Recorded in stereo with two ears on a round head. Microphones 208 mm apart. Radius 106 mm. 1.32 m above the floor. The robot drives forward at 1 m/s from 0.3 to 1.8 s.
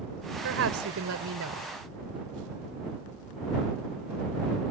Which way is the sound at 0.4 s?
55° right (ahead or behind).